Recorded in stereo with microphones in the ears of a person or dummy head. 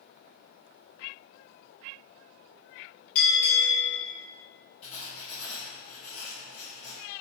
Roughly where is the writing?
Left.